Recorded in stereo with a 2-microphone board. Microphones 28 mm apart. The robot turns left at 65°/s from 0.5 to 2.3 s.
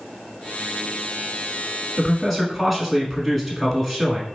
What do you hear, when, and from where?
2.0 s a man speaking: 10° left (ahead or behind), 1.2 m; by 4.3 s 5° left (ahead or behind), 1.2 m